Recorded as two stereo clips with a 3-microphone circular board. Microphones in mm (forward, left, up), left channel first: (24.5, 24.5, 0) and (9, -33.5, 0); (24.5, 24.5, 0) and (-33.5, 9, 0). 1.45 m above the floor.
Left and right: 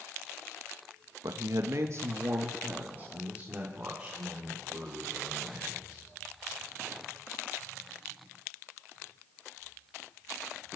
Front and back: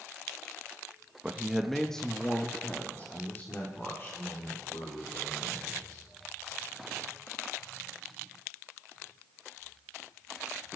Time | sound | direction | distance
1.2 | a man speaking | 90° right | 1.4 m